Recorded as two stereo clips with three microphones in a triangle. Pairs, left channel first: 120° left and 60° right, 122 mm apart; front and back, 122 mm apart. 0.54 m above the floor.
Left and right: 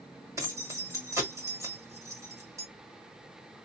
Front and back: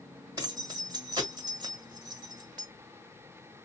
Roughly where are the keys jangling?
Behind right.